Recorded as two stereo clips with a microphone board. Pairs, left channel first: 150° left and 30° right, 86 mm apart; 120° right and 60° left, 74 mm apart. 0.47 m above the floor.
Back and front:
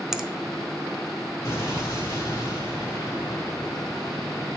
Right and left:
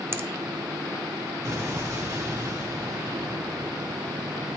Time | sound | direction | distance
0.1 | a finger snap | 50° left | 0.5 m
1.4 | an explosion | 100° left | 2 m